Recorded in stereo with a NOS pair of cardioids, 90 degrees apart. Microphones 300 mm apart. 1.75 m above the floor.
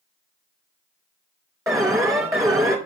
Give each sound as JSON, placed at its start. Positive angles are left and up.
{"t": 1.7, "sound": "an alarm", "azimuth_deg": -10, "distance_m": 2.5}